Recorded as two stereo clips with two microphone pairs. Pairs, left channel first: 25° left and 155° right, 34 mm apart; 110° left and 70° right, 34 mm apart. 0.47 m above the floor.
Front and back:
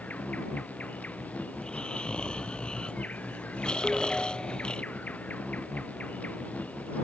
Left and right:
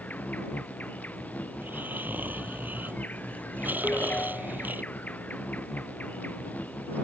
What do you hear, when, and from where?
0.0 s an insect: 70° left
1.5 s snoring: 40° right
3.8 s a ringtone: 105° left